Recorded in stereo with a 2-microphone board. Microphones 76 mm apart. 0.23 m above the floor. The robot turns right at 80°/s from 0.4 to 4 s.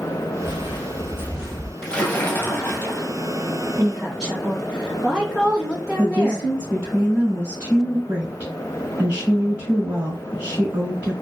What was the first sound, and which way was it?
Footsteps, 85° left.